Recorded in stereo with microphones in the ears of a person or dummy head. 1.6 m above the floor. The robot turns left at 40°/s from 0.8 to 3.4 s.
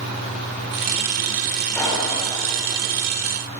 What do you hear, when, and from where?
1.8 s a pop: 20° left (ahead or behind), 3.5 m; by 2.1 s 35° left (ahead or behind), 3.5 m